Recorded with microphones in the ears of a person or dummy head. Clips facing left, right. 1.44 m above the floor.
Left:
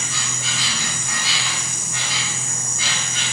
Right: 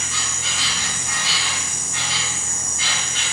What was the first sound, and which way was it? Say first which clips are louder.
An insect: left 1 dB; 80° left.